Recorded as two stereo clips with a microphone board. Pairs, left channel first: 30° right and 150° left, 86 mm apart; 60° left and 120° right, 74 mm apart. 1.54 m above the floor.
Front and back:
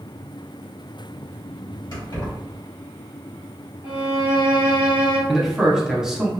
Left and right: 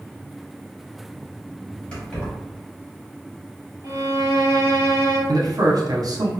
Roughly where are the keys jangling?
Ahead.